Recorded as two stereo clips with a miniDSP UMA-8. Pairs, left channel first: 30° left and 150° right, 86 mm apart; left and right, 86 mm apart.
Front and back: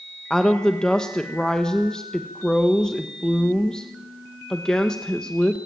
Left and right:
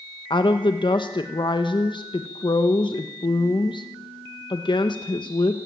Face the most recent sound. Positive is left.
turn(degrees=115)